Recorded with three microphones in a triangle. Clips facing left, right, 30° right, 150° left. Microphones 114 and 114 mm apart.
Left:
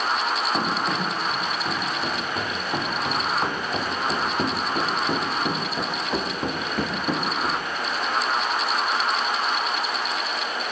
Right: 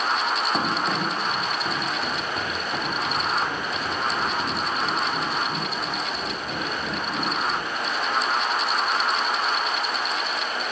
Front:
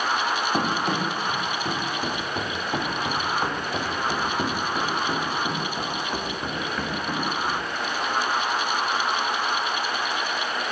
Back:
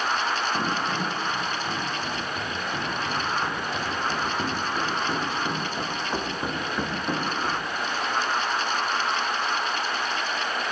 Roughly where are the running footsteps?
Ahead.